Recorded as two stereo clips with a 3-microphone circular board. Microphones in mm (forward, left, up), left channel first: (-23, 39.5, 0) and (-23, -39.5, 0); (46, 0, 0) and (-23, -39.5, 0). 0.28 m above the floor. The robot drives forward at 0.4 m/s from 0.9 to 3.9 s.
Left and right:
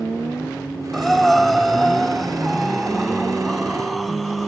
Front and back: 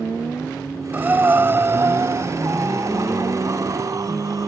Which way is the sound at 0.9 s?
175° left.